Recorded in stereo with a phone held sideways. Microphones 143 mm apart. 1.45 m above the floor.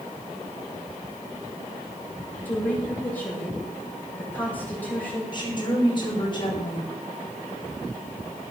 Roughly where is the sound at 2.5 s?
Centre.